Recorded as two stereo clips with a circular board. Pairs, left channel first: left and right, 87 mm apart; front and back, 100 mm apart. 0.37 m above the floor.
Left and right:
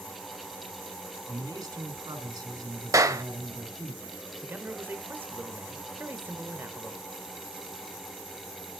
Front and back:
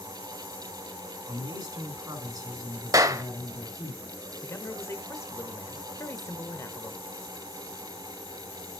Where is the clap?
135° right, 1.1 m.